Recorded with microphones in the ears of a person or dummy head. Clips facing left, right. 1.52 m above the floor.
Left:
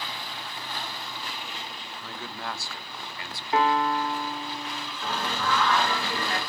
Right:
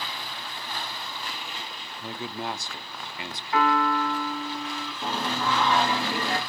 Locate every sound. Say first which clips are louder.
2.0 s a man speaking: right 5 dB; 15° right (ahead or behind), 0.5 m
3.5 s a piano: even; 25° left (ahead or behind), 2.5 m
5.0 s singing: right 2 dB; 25° right (ahead or behind), 1.8 m